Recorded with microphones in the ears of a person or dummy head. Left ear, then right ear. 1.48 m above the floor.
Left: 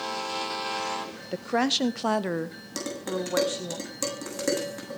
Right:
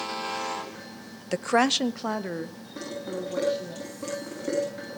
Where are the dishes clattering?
80° left, 8.5 m.